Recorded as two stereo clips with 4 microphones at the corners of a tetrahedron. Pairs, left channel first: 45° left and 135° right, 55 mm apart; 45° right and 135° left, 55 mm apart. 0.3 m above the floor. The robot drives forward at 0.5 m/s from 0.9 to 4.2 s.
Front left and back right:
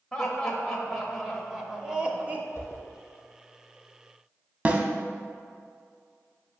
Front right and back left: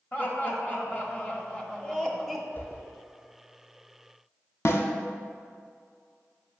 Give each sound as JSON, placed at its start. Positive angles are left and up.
{"t": 0.1, "sound": "laughter", "azimuth_deg": -30, "distance_m": 1.0}
{"t": 2.5, "sound": "a whoosh", "azimuth_deg": 0, "distance_m": 2.5}
{"t": 4.7, "sound": "a snare drum", "azimuth_deg": -75, "distance_m": 0.8}